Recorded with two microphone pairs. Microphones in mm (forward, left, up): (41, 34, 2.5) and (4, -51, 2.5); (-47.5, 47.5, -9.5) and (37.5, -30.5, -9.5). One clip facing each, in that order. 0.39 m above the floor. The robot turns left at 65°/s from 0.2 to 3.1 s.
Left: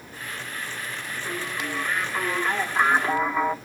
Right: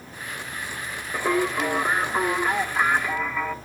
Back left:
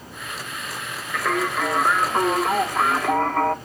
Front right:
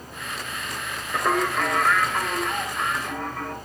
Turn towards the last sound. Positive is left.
turn(degrees=125)